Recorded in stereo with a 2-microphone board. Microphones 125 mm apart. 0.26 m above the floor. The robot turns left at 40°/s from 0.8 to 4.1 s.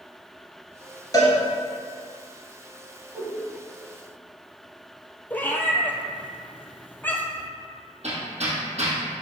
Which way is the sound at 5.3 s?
15° left (ahead or behind).